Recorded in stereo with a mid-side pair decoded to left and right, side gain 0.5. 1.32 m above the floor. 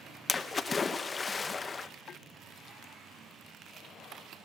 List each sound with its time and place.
0.3 s a splash: 30° left, 1.4 m